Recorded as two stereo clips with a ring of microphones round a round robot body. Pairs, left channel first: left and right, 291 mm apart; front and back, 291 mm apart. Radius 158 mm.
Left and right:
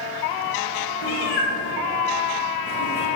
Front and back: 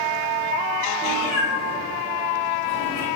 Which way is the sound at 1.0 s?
80° left.